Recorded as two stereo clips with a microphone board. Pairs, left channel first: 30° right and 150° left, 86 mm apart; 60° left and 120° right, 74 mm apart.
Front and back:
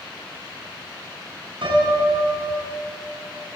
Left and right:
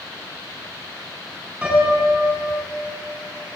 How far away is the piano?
About 8 m.